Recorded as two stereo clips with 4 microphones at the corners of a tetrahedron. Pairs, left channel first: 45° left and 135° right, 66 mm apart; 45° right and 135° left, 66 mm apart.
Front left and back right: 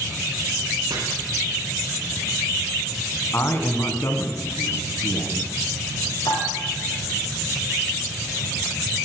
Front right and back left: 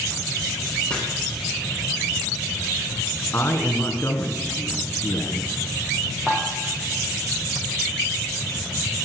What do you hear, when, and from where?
0.9 s chopping: 120° right, 5 m
3.3 s a man speaking: straight ahead, 1.9 m
6.3 s dishes clattering: 55° left, 3.5 m